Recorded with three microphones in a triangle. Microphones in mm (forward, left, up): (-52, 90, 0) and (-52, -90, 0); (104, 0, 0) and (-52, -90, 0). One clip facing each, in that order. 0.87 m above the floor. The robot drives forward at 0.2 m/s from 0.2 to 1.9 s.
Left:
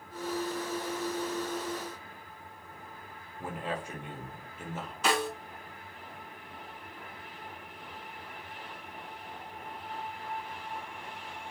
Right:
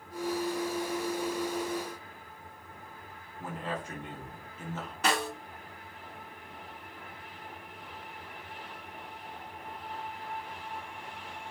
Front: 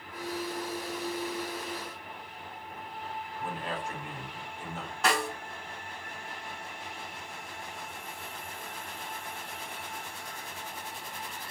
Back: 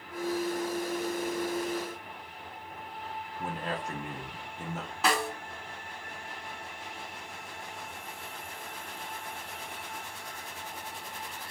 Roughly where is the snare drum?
Ahead right.